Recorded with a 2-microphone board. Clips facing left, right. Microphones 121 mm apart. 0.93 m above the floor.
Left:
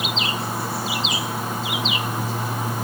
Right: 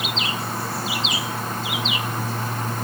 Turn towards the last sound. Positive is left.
No sound to turn to.